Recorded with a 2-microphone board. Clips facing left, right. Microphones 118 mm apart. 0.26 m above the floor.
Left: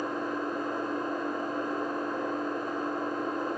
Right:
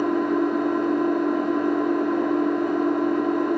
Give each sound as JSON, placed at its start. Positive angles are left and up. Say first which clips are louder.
{"t": 0.0, "sound": "an engine running", "louder": "right 11 dB", "side_deg": -75, "distance_m": 2.5}